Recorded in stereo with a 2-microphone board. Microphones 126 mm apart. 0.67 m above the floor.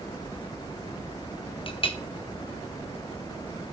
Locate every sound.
1.7 s a clink: 45° left (ahead or behind), 0.9 m